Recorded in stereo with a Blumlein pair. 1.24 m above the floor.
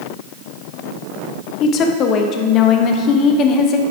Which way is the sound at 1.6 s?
35° left.